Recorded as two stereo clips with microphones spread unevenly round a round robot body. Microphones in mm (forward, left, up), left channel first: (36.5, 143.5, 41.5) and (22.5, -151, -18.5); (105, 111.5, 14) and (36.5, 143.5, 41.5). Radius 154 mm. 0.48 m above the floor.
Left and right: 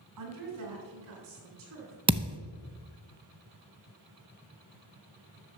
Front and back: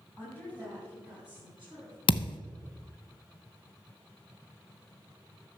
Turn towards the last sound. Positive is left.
turn(degrees=-15)